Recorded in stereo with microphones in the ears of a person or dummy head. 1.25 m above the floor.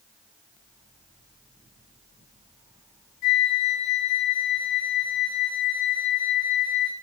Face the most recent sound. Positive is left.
turn(degrees=60)  # may be behind; listen again after turning